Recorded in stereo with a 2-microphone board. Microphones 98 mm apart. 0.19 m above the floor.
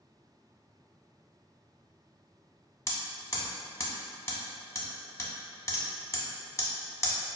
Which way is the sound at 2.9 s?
30° left (ahead or behind).